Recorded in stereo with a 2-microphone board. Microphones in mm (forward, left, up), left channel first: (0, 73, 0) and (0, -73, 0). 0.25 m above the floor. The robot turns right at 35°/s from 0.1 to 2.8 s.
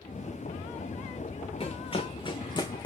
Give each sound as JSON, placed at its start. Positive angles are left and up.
{"t": 1.6, "sound": "running footsteps", "side_deg": 40, "distance_m": 1.6}